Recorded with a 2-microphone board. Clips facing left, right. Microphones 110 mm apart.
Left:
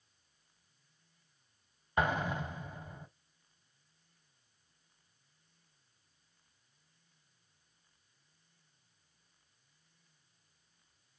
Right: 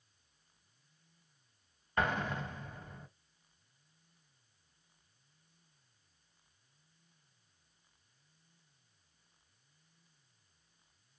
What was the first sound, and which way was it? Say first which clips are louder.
An explosion: left 2 dB; 15° left (ahead or behind).